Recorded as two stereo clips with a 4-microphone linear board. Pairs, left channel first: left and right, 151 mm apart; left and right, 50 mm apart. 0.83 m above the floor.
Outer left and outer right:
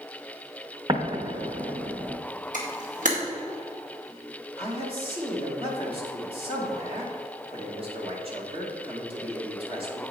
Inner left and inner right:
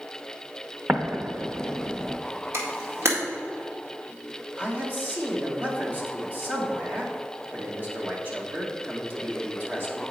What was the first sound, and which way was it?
An explosion, 30° right (ahead or behind).